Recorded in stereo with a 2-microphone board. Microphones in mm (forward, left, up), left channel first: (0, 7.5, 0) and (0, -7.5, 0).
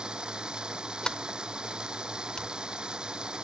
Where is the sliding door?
70° left (ahead or behind).